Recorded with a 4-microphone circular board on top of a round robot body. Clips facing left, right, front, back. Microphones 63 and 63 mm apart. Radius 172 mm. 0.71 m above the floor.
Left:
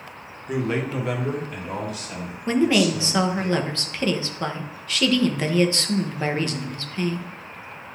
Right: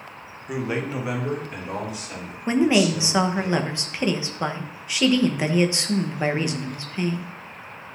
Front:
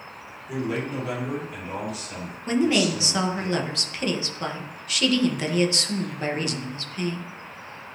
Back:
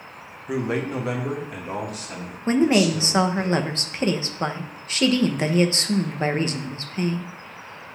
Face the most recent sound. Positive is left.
turn(degrees=-155)